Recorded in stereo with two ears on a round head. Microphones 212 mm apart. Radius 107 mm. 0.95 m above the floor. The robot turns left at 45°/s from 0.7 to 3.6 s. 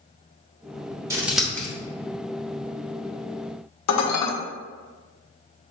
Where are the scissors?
15° right (ahead or behind), 1.2 m; by 1.7 s 15° left (ahead or behind), 1.2 m.